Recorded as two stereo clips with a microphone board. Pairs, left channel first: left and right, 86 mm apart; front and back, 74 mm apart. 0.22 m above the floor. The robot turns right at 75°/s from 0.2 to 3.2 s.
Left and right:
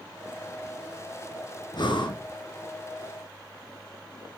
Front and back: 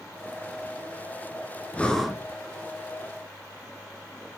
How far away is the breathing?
About 1.0 m.